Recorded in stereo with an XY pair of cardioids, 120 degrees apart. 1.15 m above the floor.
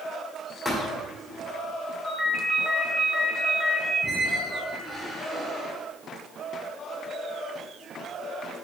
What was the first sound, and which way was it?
A thud, 5° left.